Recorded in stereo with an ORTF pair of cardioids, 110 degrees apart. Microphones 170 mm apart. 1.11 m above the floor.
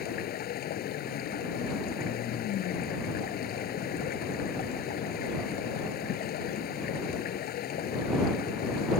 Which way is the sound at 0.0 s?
65° left.